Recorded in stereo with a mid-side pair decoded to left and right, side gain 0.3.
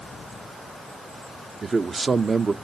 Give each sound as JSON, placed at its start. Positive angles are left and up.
{"t": 1.6, "sound": "a man speaking", "azimuth_deg": -45, "distance_m": 0.7}